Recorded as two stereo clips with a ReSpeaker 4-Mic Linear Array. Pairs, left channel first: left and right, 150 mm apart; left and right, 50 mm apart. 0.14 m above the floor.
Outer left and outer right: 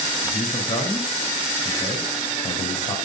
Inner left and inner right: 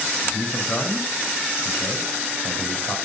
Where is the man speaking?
50° left (ahead or behind), 5 m.